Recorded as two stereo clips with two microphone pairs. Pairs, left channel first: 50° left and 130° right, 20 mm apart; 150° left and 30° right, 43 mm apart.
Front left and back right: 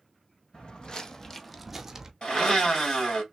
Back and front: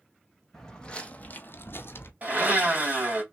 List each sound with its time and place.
0.5 s footsteps: 75° left, 0.8 m; by 2.1 s 160° left, 0.7 m
2.2 s a blender: 15° left, 2.5 m